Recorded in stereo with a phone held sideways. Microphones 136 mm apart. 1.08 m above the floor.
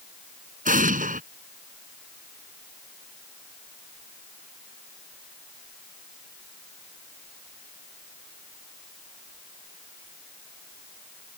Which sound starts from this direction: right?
An explosion, at 0.7 s.